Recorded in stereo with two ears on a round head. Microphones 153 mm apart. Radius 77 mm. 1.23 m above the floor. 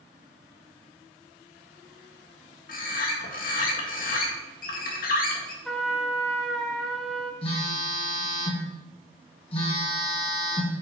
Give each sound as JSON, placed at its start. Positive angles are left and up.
{"t": 2.7, "sound": "a bird", "side_deg": 55, "distance_m": 1.8}
{"t": 5.7, "sound": "a trumpet", "side_deg": 5, "distance_m": 1.0}
{"t": 7.4, "sound": "a phone buzzing", "side_deg": 35, "distance_m": 3.5}